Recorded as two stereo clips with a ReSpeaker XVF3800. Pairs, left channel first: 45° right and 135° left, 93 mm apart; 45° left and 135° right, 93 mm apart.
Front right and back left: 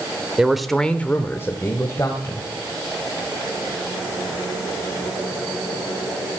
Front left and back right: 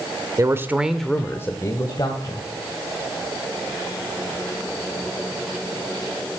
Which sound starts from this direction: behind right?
A man speaking, at 0.4 s.